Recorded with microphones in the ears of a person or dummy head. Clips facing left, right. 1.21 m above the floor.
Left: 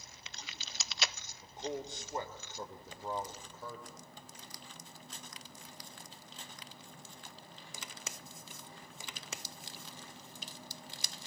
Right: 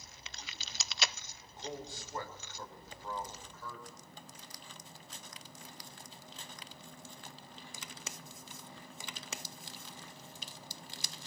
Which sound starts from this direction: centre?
A man speaking, at 1.4 s.